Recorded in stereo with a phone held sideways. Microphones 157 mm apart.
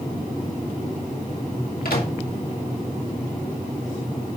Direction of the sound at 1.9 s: 85° left.